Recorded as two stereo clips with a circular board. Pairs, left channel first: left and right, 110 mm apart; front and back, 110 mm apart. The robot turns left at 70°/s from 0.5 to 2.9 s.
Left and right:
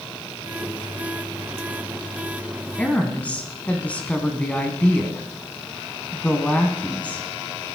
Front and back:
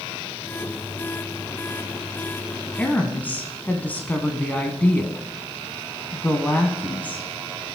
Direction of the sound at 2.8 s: 50° left.